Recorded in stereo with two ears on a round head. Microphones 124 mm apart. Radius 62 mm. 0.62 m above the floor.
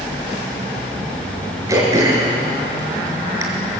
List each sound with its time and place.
1.7 s throat clearing: 25° right (ahead or behind), 5.5 m